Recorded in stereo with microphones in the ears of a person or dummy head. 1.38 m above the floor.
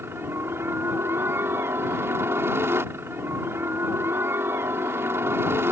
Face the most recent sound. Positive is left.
turn(degrees=-15)  # may be behind; listen again after turning